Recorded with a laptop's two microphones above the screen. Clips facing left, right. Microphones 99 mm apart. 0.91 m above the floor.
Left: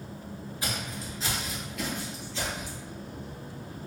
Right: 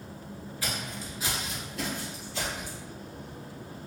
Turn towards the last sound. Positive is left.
turn(degrees=-50)  # may be behind; listen again after turning